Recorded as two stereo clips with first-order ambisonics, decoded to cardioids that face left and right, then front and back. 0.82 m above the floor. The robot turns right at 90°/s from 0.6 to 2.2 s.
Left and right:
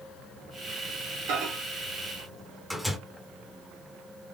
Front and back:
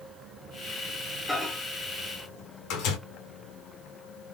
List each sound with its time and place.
1.3 s a microwave: 85° right, 1.1 m; by 3.0 s 5° right, 1.1 m